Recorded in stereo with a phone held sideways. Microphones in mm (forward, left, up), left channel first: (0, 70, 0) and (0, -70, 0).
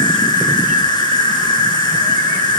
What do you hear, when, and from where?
0.0 s an insect: 35° left (ahead or behind), 1.5 m